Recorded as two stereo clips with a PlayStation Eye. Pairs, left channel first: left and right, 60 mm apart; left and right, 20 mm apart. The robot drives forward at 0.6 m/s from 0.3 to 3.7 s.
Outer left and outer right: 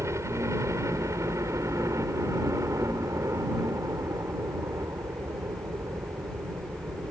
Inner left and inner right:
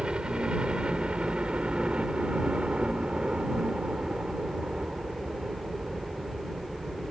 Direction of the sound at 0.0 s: 55° right (ahead or behind).